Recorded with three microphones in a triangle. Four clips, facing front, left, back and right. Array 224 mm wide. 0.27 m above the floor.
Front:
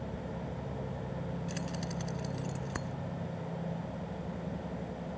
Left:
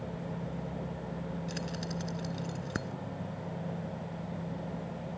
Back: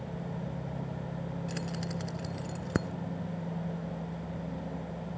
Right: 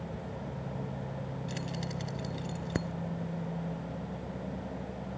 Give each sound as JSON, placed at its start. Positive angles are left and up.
{"t": 1.5, "sound": "keys jangling", "azimuth_deg": -165}